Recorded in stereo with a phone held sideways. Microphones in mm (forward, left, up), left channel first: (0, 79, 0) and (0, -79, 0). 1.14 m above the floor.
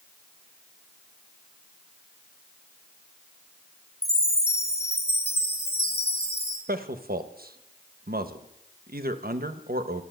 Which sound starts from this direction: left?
A chime, at 4.0 s.